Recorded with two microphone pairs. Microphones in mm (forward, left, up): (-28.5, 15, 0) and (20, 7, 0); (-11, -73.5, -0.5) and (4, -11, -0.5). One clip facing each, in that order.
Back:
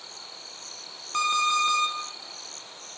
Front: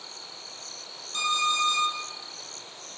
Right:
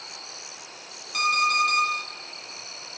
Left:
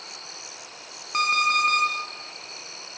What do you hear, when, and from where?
1.1 s an alarm clock: 130° left, 3 m